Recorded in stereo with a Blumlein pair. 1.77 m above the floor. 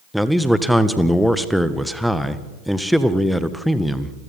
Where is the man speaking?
Straight ahead, 1.6 m.